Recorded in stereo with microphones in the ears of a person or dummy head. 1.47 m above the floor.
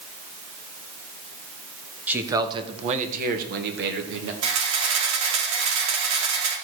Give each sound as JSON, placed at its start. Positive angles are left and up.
{"t": 2.1, "sound": "a man speaking", "side_deg": -10, "distance_m": 1.4}
{"t": 4.4, "sound": "a camera shutter", "side_deg": -70, "distance_m": 3.5}